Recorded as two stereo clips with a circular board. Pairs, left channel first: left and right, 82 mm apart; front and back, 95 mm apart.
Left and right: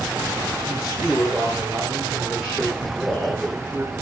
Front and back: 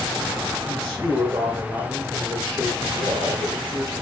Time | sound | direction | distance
0.7 | a man speaking | 170° right | 2.0 m